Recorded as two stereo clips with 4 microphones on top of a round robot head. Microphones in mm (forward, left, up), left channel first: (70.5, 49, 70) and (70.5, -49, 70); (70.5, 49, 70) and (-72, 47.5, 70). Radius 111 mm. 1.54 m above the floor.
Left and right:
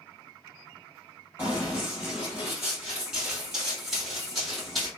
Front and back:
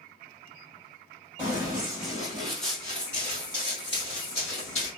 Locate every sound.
1.4 s running footsteps: 155° right, 1.6 m; by 4.9 s straight ahead, 1.9 m